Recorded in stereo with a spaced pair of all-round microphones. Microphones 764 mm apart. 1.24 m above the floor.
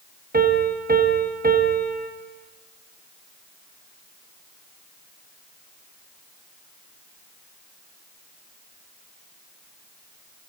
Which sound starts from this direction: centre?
A piano, at 0.3 s.